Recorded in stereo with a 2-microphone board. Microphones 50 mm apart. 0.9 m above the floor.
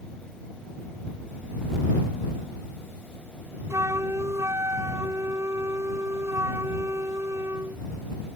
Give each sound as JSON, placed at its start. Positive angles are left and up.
{"t": 3.7, "sound": "a flute", "side_deg": -70}